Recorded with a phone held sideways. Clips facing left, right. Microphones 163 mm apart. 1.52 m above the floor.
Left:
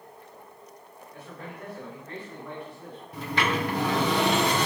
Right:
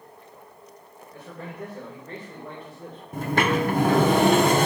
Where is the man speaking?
40° right (ahead or behind), 2.5 m.